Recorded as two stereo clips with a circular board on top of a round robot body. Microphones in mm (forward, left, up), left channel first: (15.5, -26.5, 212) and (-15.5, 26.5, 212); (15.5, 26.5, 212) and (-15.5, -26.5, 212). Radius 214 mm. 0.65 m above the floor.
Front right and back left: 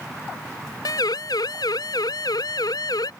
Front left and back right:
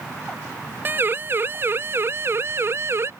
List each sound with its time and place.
0.8 s a siren: 65° right; by 3.1 s 70° right